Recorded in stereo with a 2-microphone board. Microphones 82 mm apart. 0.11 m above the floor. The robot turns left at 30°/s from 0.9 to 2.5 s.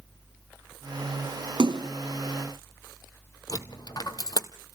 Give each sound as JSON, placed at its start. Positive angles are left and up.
{"t": 1.6, "sound": "a splash", "side_deg": -65, "distance_m": 0.6}
{"t": 3.5, "sound": "a dropped coin", "side_deg": 50, "distance_m": 1.5}